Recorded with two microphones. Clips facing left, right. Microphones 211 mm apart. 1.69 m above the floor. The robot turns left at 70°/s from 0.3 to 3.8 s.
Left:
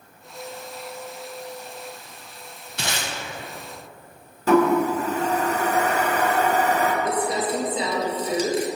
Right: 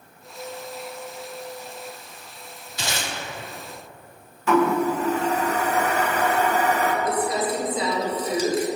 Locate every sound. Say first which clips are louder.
2.8 s tape being pulled: even; 60° left (ahead or behind), 1.3 m
4.5 s a toilet flushing: left 2 dB; 35° left (ahead or behind), 0.9 m
7.0 s crumpling: even; 25° left (ahead or behind), 1.1 m